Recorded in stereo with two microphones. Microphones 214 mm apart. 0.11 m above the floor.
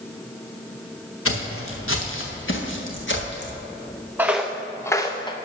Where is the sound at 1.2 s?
85° left, 1.8 m; by 3.6 s 55° left (ahead or behind), 2.5 m.